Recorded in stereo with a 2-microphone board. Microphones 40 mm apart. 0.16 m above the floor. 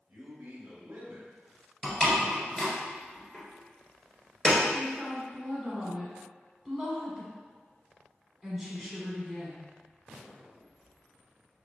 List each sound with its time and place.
0.1 s a man speaking: 40° right (ahead or behind), 1.8 m
1.8 s a door slam: 20° left (ahead or behind), 1.5 m
4.7 s a woman speaking: 5° left (ahead or behind), 1.1 m